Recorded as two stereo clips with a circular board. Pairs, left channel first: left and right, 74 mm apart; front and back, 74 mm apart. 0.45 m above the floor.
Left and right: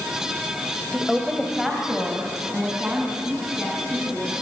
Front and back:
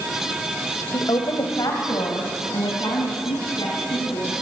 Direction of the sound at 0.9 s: Straight ahead.